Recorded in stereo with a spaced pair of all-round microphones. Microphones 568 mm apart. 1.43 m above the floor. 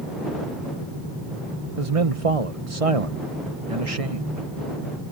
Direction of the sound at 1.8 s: 70° right (ahead or behind).